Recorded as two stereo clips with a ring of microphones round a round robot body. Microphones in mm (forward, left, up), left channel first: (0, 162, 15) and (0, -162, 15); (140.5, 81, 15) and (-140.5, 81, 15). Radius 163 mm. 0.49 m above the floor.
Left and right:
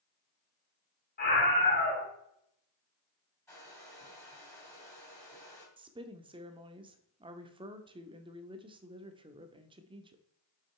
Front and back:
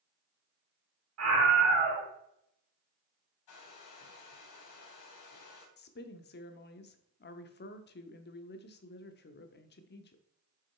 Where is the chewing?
No chewing in this recording.